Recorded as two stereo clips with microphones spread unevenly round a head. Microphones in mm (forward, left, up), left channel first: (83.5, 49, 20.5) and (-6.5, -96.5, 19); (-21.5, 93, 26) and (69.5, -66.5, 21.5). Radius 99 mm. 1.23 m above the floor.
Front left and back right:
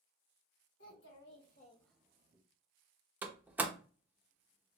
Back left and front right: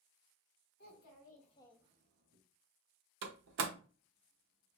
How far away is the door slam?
About 0.6 m.